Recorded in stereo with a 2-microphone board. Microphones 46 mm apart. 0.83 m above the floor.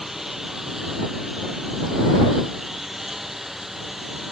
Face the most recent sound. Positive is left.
turn(degrees=-5)  # may be behind; listen again after turning